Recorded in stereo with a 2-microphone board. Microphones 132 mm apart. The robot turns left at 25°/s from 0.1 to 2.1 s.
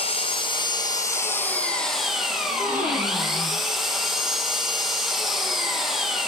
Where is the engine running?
50° left, 2 m; by 6.3 s straight ahead, 2 m.